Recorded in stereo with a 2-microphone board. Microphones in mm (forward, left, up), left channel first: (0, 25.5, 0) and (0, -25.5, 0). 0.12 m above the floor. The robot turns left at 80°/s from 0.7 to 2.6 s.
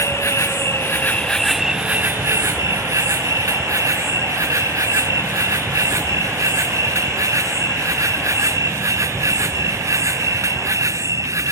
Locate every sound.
0.0 s an insect: 65° left; by 11.5 s 85° right